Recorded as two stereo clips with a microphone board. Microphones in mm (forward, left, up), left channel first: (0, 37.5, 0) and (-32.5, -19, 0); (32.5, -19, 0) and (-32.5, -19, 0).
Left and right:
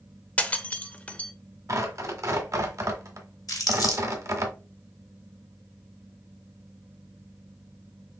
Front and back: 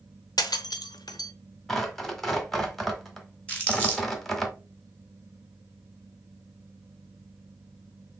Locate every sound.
0.4 s breaking glass: 10° right, 0.6 m
1.7 s tearing paper: 85° right, 1.1 m
3.5 s crumpling: 75° left, 3 m